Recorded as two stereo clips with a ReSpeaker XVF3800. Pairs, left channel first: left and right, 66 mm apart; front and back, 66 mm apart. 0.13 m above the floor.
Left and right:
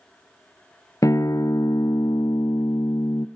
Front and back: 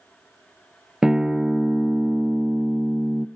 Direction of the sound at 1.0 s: 100° left.